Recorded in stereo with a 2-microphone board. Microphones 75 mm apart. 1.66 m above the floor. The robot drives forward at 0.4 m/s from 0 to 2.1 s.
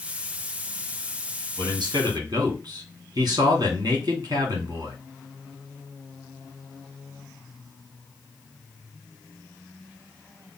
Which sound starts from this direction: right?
A man speaking, at 1.6 s.